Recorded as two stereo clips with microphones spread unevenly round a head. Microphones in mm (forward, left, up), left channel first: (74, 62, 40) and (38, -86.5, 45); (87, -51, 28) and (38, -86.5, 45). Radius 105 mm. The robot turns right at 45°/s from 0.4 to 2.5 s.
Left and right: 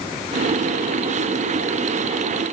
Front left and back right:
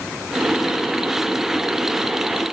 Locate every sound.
Only background noise.